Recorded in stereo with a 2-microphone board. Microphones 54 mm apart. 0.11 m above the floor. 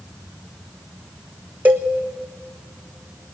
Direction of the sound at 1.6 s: 35° right (ahead or behind).